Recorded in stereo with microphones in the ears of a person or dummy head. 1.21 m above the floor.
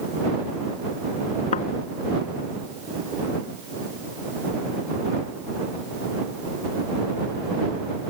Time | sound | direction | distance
1.5 | a thud | 40° left (ahead or behind) | ?